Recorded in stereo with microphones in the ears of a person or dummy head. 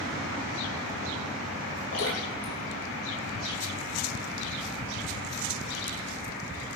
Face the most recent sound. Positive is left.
turn(degrees=80)